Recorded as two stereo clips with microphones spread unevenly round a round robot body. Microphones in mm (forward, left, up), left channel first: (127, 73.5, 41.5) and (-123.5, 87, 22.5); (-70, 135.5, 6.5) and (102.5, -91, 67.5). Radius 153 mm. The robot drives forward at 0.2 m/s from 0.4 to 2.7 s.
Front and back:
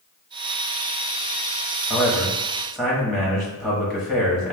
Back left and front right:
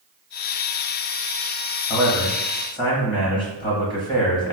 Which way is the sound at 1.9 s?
80° left.